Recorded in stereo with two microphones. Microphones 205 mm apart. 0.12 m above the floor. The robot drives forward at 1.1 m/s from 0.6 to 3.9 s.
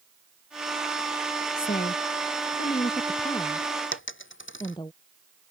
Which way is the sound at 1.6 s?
45° left (ahead or behind).